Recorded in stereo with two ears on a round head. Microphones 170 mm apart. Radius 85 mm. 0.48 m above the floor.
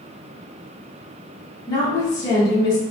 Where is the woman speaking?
20° left (ahead or behind), 0.7 m.